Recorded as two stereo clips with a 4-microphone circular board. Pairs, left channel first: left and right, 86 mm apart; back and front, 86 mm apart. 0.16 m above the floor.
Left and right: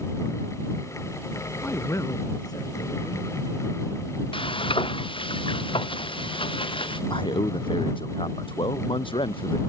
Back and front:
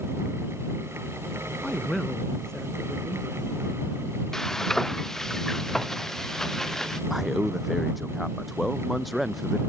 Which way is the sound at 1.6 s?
100° left.